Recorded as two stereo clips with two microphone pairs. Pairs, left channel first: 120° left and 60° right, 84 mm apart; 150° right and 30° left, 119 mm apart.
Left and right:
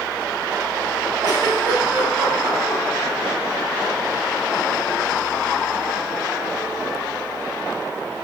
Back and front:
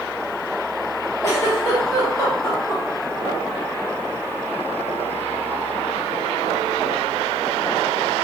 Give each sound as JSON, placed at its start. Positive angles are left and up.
{"t": 1.2, "sound": "a giggle", "azimuth_deg": -90, "distance_m": 1.0}